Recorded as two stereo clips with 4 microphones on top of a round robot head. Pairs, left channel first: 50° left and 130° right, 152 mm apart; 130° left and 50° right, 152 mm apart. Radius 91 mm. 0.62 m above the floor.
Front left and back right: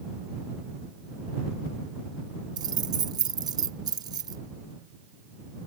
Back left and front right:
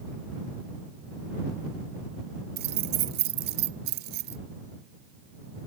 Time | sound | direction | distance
2.6 | keys jangling | 65° right | ?